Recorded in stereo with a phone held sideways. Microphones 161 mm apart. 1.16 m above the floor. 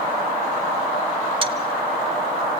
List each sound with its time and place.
1.4 s a dropped coin: 35° right (ahead or behind), 1.2 m